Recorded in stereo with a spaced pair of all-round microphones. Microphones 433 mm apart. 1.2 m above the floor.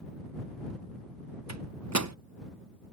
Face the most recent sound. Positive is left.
turn(degrees=-40)  # may be behind; listen again after turning